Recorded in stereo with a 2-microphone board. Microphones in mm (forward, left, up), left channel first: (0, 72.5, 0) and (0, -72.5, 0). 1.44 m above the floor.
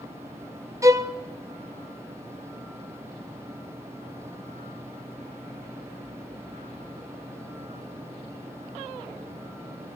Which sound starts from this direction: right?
A violin, at 0.8 s.